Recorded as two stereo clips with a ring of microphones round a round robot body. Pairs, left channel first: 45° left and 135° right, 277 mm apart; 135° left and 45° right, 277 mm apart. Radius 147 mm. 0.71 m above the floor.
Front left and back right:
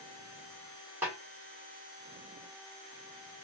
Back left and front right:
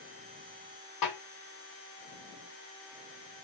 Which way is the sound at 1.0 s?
145° left.